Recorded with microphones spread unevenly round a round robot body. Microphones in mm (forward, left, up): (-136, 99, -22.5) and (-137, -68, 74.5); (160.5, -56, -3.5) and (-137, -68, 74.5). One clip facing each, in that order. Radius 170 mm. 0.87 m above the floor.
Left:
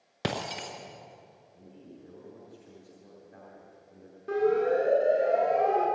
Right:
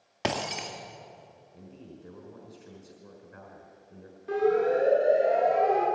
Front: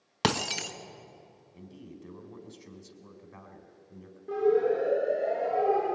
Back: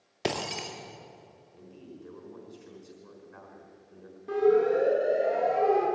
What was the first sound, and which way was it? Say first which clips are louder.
Breaking glass: right 2 dB, front 1 dB; 5° left.